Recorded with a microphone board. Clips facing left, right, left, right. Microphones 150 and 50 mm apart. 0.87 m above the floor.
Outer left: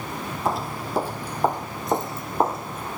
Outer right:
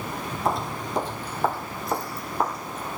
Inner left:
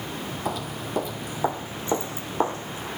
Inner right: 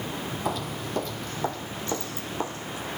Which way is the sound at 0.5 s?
Centre (ahead or behind).